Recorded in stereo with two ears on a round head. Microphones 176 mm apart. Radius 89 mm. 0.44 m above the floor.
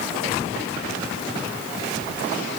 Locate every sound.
Only background noise.